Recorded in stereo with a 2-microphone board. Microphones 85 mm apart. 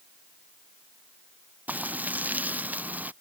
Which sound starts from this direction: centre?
Frying, at 1.7 s.